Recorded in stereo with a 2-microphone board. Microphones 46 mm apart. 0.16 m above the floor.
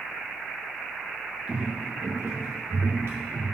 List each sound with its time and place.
1.5 s footsteps: 20° right (ahead or behind), 1.3 m; by 3.5 s 55° right (ahead or behind), 1.5 m